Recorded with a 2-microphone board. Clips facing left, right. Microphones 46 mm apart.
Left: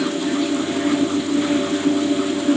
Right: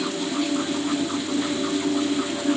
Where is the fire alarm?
No fire alarm in this recording.